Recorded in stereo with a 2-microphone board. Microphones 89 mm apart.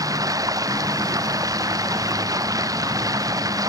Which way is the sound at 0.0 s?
40° right (ahead or behind).